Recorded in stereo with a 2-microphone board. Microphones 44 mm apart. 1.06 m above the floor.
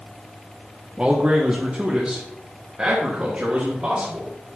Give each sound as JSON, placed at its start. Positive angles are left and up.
{"t": 1.0, "sound": "a man speaking", "side_deg": -30, "distance_m": 0.7}